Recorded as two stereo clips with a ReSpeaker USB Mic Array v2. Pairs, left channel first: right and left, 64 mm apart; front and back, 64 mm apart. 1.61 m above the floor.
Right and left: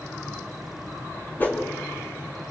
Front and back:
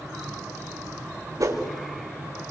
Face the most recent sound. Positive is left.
turn(degrees=-150)